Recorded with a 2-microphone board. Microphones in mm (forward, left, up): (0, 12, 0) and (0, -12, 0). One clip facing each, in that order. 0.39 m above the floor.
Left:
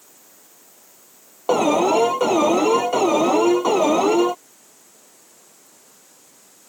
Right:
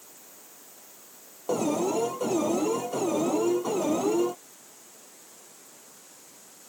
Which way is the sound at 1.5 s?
50° left (ahead or behind).